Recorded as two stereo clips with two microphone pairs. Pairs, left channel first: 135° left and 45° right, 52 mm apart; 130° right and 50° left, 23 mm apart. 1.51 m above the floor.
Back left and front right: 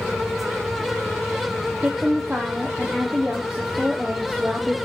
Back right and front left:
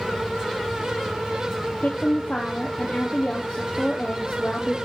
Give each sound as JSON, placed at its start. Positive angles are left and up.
{"t": 1.8, "sound": "a woman speaking", "azimuth_deg": -120, "distance_m": 1.0}